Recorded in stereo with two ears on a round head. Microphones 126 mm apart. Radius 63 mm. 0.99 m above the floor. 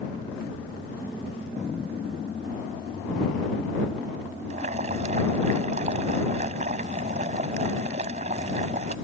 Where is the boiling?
50° right (ahead or behind).